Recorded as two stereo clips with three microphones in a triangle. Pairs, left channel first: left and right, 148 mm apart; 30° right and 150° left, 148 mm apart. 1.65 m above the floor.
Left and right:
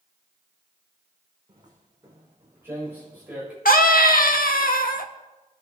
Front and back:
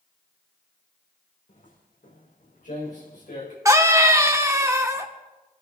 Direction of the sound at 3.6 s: 80° left.